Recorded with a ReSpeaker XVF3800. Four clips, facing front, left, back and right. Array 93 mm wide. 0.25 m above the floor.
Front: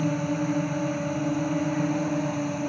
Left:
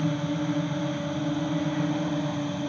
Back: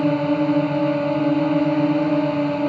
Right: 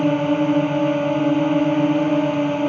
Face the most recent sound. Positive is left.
turn(degrees=-130)